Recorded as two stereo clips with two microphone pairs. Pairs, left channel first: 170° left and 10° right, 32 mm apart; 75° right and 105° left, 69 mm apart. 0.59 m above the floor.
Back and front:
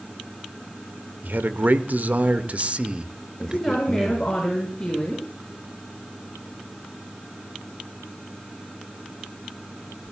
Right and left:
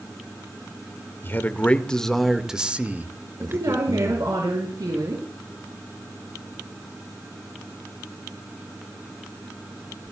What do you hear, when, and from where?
1.2 s a man speaking: 20° right, 2.0 m; by 4.3 s 65° left, 3 m
3.4 s a woman speaking: 100° left, 7 m